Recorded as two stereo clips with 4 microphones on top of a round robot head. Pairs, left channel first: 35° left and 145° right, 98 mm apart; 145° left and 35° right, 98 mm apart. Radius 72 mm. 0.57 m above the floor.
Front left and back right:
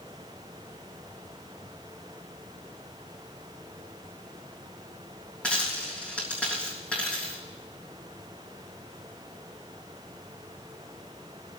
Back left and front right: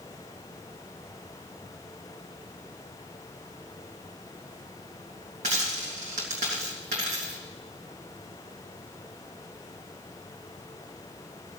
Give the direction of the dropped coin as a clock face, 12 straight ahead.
1 o'clock.